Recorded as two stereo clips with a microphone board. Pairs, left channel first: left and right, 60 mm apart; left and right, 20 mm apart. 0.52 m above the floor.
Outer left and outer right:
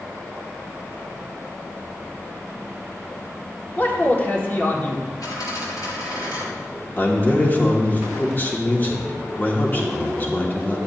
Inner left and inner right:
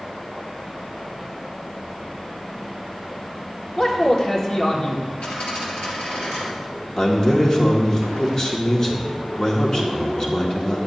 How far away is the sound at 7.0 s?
About 1.3 m.